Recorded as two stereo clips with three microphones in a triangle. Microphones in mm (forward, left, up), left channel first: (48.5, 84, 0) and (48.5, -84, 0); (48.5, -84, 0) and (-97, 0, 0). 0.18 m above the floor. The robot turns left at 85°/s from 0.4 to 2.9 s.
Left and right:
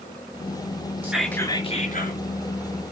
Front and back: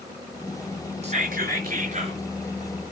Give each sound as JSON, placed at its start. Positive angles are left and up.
{"t": 1.0, "sound": "whispering", "azimuth_deg": -165, "distance_m": 3.0}